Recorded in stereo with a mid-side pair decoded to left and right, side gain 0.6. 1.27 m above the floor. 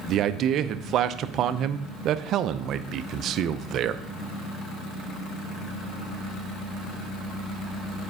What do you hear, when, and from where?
0.1 s a man speaking: 55° right, 0.7 m